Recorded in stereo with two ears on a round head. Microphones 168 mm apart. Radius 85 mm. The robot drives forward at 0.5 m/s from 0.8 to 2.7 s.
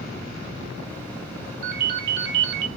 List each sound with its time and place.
1.6 s a ringtone: 45° right (ahead or behind), 0.6 m; by 2.7 s 55° right (ahead or behind), 0.5 m